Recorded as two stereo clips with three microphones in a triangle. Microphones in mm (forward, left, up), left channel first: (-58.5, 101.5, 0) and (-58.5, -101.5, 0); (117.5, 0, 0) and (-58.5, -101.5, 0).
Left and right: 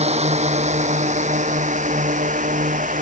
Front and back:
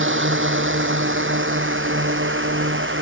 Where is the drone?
145° right; by 3.0 s 140° right.